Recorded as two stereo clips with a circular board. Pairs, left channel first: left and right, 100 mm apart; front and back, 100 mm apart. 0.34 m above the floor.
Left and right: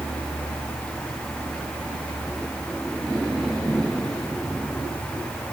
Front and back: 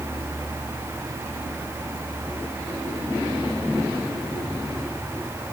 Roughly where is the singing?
No singing in this recording.